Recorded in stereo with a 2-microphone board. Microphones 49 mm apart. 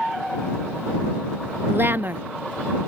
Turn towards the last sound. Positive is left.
turn(degrees=-50)  # may be behind; listen again after turning